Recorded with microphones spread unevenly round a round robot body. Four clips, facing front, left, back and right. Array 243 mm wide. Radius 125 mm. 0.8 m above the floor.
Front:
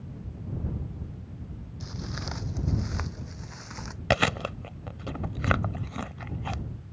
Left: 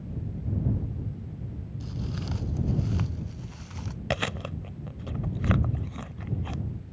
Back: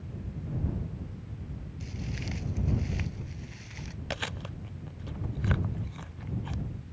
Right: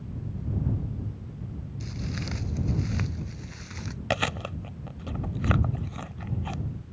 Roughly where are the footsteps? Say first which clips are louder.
Even, front 2 dB; ahead right.